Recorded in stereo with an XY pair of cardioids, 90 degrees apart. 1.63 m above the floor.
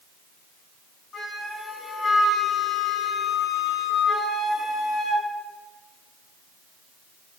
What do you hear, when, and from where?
1.1 s a flute: 55° left, 4.5 m